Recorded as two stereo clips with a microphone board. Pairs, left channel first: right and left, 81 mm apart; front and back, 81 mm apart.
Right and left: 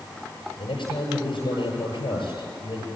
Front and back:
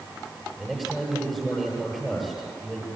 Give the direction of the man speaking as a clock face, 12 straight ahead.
3 o'clock.